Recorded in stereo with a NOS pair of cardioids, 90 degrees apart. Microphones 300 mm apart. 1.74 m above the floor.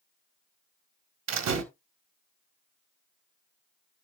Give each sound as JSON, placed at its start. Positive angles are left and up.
{"t": 1.3, "sound": "a door slam", "azimuth_deg": -65, "distance_m": 1.9}